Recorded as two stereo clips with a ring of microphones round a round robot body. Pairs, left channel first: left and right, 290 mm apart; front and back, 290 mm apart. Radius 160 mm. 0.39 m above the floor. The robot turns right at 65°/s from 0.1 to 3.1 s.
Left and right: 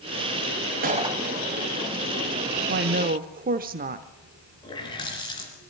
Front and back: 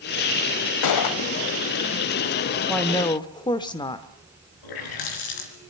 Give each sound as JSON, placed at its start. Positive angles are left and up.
{"t": 0.8, "sound": "a gunshot", "azimuth_deg": -30, "distance_m": 1.1}
{"t": 2.7, "sound": "a woman speaking", "azimuth_deg": -90, "distance_m": 0.9}
{"t": 4.6, "sound": "a running tap", "azimuth_deg": 15, "distance_m": 3.5}